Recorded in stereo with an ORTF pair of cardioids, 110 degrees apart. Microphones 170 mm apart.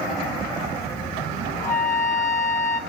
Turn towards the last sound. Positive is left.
turn(degrees=20)